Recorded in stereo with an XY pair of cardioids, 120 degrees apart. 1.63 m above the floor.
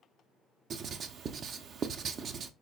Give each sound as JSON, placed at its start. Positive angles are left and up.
{"t": 0.7, "sound": "writing", "azimuth_deg": -45, "distance_m": 0.5}